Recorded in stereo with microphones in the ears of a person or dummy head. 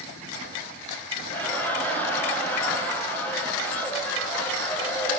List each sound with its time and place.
1.3 s laughter: 10° left (ahead or behind), 0.5 m